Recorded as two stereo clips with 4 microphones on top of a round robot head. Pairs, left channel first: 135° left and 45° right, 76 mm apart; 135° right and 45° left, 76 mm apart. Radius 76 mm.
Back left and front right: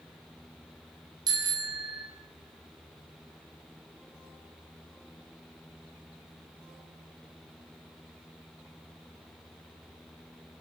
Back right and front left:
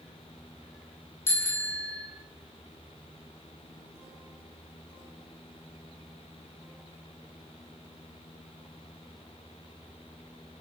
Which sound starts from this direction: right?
A bicycle bell, at 1.3 s.